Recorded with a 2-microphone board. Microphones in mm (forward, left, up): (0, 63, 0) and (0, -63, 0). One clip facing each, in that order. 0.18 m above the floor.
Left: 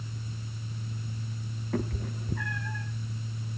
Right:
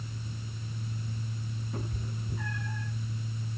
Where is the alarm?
No alarm in this recording.